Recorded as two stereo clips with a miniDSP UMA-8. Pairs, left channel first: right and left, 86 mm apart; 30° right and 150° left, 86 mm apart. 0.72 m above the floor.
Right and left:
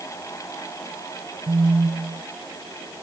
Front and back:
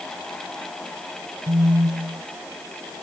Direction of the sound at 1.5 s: 125° left.